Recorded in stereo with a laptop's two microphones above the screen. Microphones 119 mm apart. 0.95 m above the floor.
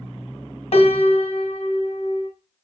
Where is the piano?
65° left (ahead or behind), 1.6 m.